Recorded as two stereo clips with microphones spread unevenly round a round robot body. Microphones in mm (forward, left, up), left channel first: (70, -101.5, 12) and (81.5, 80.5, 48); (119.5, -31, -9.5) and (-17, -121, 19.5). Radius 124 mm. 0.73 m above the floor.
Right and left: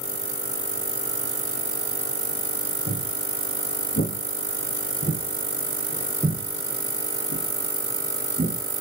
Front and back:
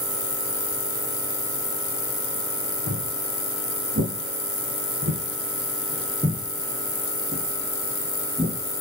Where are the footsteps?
140° right, 2.5 m; by 8.6 s 140° left, 3 m.